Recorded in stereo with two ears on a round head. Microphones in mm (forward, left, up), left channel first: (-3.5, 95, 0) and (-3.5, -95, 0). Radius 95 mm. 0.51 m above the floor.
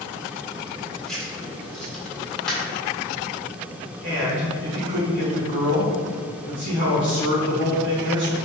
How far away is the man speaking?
About 2.0 m.